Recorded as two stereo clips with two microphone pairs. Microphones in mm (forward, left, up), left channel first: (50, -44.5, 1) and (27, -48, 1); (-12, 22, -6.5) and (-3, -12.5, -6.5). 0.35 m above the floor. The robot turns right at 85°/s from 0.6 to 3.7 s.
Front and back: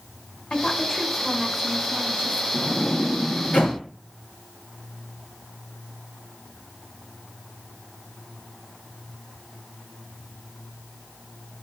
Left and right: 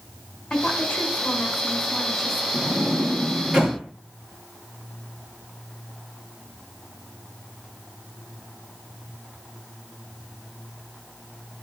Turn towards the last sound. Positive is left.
turn(degrees=0)